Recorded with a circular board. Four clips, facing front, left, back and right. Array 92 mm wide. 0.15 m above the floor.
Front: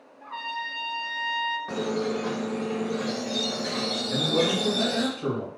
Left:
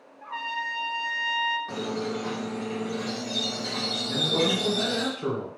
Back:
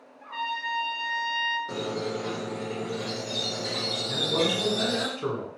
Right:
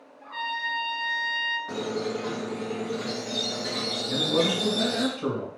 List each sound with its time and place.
0.2 s a trumpet: 100° left, 0.6 m
1.7 s a squeak: 10° right, 1.2 m
4.1 s a man speaking: 160° right, 1.1 m